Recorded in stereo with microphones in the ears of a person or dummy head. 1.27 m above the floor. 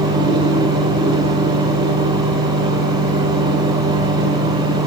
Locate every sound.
0.0 s a fan: 25° right (ahead or behind), 1.8 m